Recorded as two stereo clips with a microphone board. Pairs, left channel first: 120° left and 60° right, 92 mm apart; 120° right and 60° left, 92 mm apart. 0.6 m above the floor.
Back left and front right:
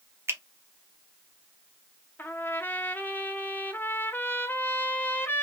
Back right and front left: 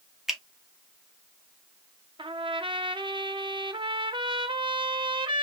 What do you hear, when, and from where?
0.3 s a finger snap: 25° right, 0.6 m
2.2 s a trumpet: 55° left, 0.5 m